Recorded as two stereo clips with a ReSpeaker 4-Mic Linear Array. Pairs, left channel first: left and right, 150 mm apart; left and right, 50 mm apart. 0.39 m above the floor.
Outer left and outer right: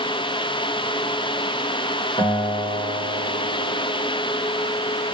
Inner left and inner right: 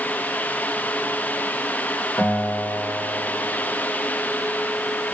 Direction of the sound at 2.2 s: 35° left (ahead or behind).